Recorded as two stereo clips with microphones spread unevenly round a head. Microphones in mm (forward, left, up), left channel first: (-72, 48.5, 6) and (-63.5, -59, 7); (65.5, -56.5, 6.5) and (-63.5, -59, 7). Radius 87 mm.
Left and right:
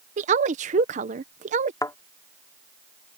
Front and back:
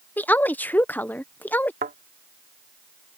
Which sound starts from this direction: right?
A woman speaking, at 0.2 s.